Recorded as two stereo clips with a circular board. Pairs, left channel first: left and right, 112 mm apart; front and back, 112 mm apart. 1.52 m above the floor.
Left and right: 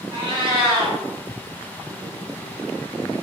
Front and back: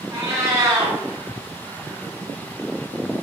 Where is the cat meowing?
125° right, 1.3 m.